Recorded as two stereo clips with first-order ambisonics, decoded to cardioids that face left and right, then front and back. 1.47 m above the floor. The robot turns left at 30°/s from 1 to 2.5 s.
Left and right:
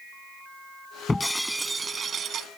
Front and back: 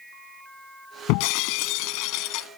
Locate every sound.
1.1 s breaking glass: 10° left; by 2.5 s 35° right